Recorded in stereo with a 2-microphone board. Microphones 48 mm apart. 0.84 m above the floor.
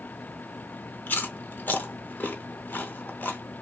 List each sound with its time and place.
1.1 s chewing: 45° left (ahead or behind), 0.6 m